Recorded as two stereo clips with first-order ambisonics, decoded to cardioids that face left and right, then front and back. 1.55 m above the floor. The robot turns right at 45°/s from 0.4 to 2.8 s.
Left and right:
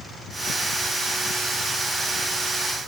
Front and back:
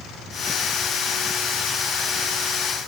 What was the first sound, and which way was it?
Only background noise.